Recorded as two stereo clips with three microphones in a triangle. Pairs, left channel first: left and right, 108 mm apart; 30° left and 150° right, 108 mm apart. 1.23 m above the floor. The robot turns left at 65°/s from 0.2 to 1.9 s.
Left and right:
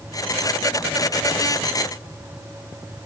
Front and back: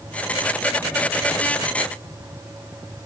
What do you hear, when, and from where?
Only background noise.